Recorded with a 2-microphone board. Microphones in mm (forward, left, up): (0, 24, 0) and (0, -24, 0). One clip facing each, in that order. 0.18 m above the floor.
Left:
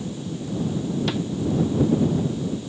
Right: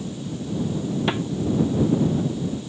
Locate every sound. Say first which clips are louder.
1.1 s a snare drum: right 2 dB; 25° right (ahead or behind)